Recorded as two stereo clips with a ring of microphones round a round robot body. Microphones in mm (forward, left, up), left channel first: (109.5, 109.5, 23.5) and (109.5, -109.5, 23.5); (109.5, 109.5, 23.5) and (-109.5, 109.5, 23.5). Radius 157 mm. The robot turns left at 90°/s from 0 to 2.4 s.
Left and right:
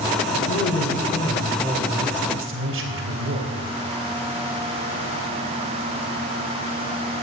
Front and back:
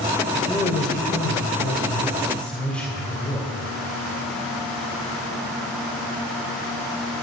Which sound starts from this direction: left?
A man speaking, at 0.3 s.